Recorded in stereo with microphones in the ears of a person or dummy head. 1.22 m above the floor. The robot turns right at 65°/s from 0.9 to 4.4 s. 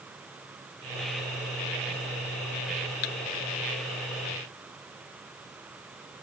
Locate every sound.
3.0 s a thud: 40° left (ahead or behind)